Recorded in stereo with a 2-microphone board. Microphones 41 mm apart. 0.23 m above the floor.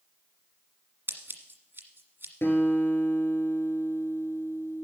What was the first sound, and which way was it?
Scissors, 55° right (ahead or behind).